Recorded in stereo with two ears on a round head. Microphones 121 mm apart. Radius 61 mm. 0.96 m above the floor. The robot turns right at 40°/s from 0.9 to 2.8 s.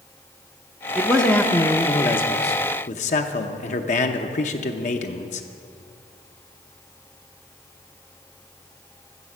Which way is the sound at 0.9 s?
5° right.